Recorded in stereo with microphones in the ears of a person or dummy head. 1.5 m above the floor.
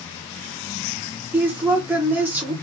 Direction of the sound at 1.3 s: 10° right (ahead or behind).